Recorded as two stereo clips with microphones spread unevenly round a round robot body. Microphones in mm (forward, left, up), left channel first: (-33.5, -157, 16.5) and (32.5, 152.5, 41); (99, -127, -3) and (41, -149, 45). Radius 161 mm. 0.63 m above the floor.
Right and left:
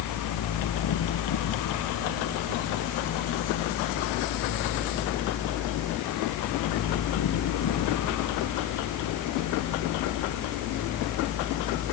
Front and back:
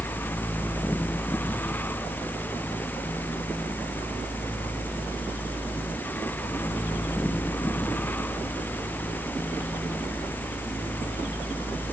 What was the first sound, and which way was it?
Only background noise.